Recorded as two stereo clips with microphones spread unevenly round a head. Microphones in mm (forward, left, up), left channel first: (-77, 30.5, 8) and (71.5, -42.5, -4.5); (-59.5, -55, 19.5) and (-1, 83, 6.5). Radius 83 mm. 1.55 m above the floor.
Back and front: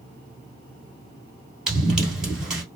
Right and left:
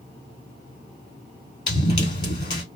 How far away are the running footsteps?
About 1.7 m.